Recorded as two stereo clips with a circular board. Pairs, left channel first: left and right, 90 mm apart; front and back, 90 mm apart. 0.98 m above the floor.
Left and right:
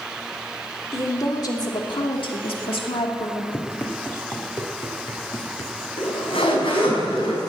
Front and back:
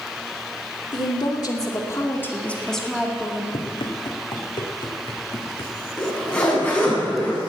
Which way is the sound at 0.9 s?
35° left.